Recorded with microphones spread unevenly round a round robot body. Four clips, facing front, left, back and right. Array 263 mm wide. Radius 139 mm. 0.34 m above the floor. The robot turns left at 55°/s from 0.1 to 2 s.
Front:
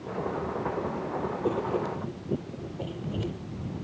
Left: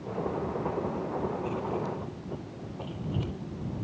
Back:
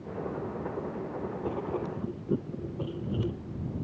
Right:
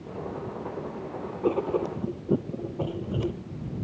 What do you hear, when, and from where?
1.4 s writing: 75° right; by 3.4 s 105° right